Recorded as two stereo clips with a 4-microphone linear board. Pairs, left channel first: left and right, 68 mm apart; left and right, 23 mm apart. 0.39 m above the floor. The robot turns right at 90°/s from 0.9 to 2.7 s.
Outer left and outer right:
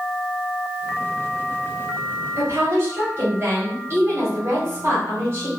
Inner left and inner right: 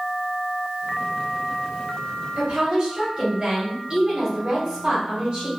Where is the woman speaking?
110° right, 1.4 m; by 5.5 s 75° right, 1.4 m.